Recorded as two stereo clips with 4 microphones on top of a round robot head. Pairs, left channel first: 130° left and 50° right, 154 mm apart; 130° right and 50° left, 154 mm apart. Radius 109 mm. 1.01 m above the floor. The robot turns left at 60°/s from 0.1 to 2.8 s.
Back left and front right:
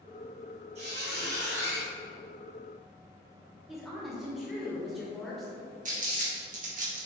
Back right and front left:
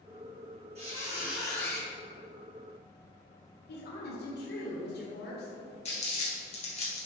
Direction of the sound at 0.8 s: Straight ahead.